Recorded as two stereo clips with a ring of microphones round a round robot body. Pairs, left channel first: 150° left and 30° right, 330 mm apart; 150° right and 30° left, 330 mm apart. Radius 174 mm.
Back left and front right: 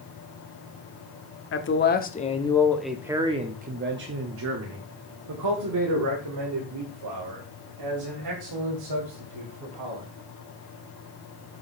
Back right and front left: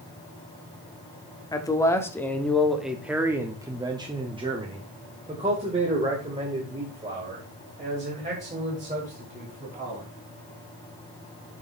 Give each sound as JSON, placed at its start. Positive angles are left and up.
{"t": 1.5, "sound": "a man speaking", "azimuth_deg": 140, "distance_m": 1.2}